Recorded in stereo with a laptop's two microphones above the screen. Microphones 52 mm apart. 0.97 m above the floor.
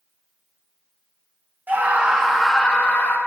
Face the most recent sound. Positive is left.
turn(degrees=40)  # may be behind; listen again after turning